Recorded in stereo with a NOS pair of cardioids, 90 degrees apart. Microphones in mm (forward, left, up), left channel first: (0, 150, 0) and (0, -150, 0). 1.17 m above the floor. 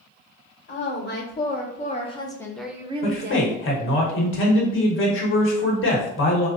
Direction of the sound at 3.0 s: 45° left.